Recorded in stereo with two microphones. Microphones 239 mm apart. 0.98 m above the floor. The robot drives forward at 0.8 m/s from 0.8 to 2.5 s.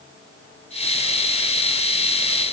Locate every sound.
Only background noise.